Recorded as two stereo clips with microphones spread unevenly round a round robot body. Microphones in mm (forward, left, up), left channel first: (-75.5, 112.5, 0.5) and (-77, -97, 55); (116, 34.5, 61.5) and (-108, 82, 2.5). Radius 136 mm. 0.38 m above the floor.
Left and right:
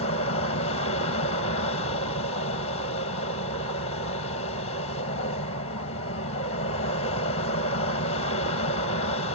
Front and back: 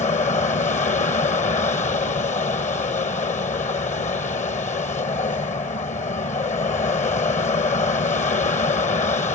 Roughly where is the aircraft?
Ahead left.